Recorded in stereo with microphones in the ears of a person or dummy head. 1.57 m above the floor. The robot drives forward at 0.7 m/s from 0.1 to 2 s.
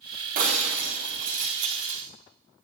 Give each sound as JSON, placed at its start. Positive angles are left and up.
{"t": 0.3, "sound": "breaking glass", "side_deg": -50, "distance_m": 4.5}